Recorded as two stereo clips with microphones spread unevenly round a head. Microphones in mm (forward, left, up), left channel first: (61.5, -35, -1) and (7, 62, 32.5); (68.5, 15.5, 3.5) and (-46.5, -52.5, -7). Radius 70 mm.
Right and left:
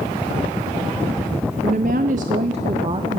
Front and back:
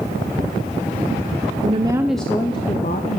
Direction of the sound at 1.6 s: 170° left.